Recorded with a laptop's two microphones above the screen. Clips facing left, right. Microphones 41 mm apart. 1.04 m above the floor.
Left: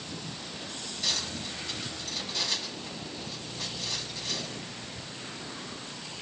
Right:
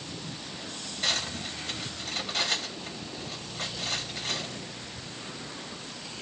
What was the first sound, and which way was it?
Cutlery clinking, 50° right (ahead or behind).